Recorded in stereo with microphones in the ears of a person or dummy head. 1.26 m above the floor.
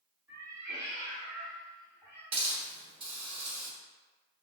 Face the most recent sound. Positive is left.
turn(degrees=-25)  # may be behind; listen again after turning